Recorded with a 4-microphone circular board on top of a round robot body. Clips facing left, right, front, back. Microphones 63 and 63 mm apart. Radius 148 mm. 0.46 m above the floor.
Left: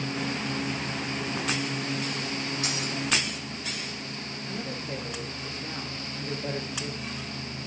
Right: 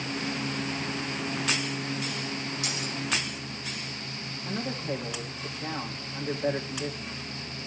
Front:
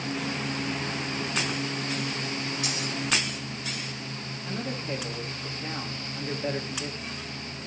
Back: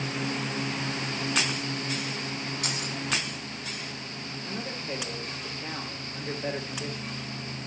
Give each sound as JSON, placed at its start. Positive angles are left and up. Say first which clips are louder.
{"t": 2.6, "sound": "keys jangling", "louder": "left 2 dB, front 1 dB", "azimuth_deg": 145, "distance_m": 4.5}
{"t": 4.5, "sound": "a man speaking", "louder": "right 4 dB, front 3 dB", "azimuth_deg": -100, "distance_m": 3.0}